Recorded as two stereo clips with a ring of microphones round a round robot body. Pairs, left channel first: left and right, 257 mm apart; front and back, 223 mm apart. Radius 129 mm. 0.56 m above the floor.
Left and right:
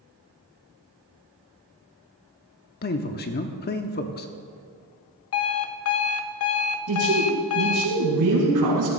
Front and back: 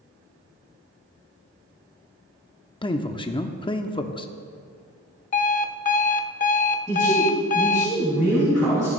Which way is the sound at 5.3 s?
55° left.